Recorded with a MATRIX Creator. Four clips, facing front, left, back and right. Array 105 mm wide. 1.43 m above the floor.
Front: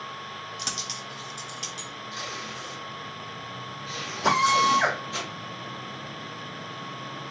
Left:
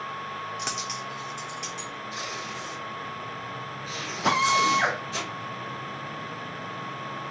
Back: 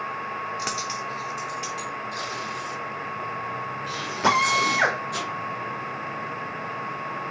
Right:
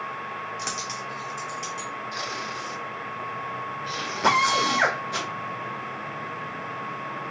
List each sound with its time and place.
0.6 s a dropped coin: 175° left, 1.2 m
2.1 s tape being pulled: 100° right, 1.6 m
4.2 s a drill: 140° right, 1.7 m